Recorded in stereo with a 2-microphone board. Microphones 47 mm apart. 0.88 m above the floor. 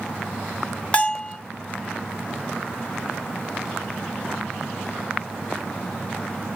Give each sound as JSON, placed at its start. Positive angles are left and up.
{"t": 0.9, "sound": "a bell", "side_deg": 25, "distance_m": 1.0}